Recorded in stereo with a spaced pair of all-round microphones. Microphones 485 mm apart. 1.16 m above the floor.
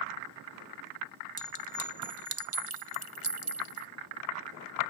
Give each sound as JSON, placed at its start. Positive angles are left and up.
{"t": 1.4, "sound": "a clink", "side_deg": -90}